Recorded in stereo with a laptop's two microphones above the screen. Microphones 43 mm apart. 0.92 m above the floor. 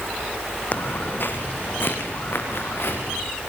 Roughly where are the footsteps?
Left.